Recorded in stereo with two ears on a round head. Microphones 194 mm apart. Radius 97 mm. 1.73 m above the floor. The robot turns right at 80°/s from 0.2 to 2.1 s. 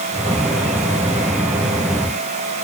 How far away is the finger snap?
No finger snap in this recording.